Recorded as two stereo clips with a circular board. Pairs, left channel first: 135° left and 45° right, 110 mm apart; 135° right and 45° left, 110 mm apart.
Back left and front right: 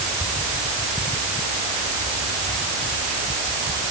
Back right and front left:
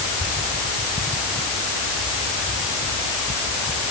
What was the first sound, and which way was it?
Only background noise.